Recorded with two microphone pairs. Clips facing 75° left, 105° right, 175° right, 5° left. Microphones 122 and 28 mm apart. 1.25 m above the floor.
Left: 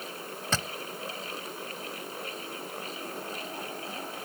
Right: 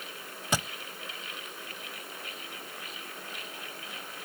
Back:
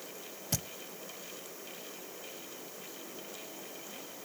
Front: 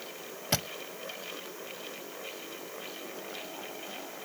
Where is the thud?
30° right.